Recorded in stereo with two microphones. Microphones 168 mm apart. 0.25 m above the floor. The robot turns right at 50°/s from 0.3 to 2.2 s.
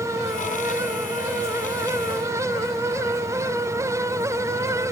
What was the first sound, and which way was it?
Only background noise.